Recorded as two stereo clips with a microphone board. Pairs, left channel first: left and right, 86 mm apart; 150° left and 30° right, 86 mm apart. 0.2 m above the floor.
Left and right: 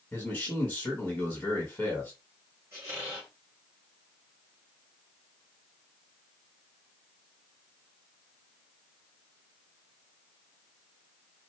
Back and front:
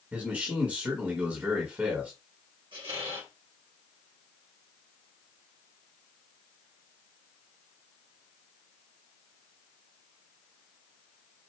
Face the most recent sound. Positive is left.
turn(degrees=-30)